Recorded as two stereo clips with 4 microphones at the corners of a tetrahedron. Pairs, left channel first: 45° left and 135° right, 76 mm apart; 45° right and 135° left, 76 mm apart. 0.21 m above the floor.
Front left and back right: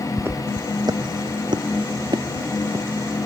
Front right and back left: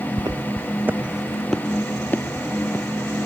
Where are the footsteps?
165° left; by 3.3 s 100° right.